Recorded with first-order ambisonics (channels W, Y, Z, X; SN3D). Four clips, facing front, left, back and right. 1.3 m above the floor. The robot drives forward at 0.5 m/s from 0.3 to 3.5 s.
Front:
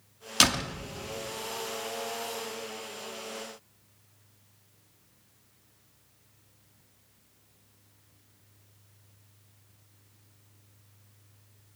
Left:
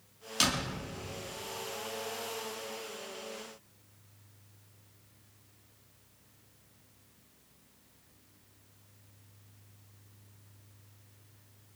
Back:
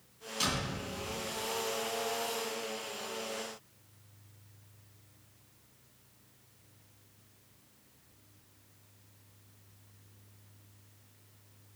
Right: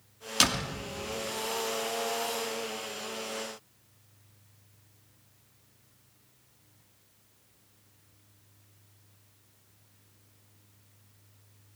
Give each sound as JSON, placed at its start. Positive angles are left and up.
{"t": 0.4, "sound": "a door slam", "azimuth_deg": -20, "distance_m": 1.5}